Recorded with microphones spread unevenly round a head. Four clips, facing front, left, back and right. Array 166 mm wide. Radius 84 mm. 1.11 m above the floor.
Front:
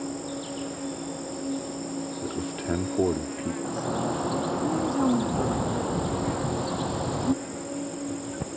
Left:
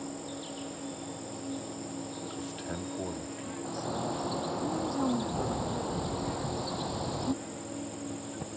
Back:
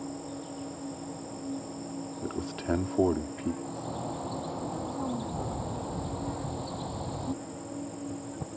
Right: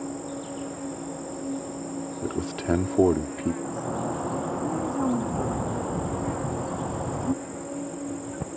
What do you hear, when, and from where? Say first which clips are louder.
0.0 s an insect: right 6 dB, front 5 dB; 40° right
2.2 s a man speaking: right 10 dB, back 1 dB; 65° right
3.6 s a bird: right 5 dB, front 8 dB; 15° right